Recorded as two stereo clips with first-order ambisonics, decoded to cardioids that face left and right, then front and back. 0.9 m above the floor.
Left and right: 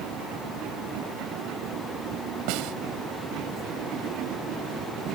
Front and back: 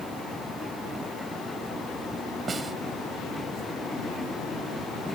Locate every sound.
2.5 s a snare drum: 105° right